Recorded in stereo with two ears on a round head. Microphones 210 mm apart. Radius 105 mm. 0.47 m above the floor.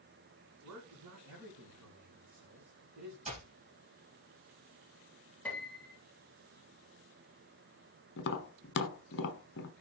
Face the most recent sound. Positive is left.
turn(degrees=50)  # may be behind; listen again after turning